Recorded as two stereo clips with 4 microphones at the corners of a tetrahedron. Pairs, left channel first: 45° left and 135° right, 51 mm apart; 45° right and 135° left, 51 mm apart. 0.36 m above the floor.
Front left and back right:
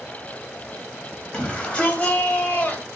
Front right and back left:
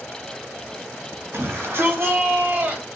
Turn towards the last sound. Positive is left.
turn(degrees=95)